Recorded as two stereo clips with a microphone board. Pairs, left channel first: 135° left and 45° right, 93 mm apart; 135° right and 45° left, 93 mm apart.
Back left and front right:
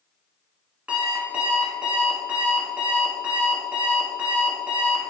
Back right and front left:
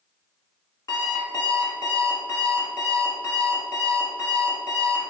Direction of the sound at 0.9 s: 115° right.